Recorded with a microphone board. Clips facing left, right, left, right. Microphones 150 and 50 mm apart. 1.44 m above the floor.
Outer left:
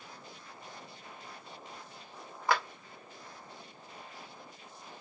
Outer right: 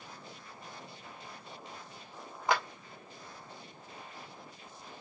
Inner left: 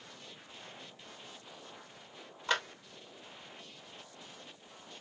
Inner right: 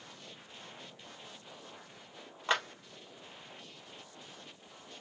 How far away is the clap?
About 1.5 m.